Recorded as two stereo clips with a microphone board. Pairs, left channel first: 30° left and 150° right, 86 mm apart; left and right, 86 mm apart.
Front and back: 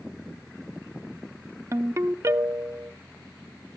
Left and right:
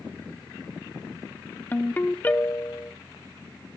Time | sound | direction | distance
1.7 | a ringtone | 155° left | 0.6 m